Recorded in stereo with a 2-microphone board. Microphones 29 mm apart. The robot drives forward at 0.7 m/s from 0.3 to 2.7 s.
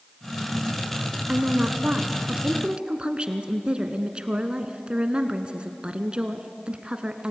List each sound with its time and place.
1.3 s a woman speaking: 35° right (ahead or behind), 1.5 m